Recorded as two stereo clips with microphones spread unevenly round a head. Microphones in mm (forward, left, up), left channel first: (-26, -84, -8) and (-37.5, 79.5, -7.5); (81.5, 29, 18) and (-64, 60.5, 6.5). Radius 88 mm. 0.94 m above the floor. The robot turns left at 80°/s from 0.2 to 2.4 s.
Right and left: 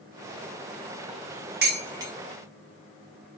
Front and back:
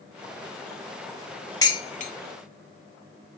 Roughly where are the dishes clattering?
Ahead left.